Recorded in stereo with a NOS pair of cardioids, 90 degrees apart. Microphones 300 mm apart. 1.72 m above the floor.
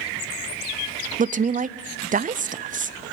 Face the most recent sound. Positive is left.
turn(degrees=-25)